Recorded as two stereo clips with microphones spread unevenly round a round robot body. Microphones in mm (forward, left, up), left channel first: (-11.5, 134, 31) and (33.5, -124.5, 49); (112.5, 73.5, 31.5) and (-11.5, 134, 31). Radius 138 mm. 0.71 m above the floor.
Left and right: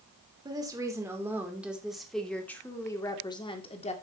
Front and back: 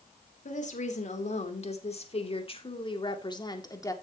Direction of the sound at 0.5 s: 5° right.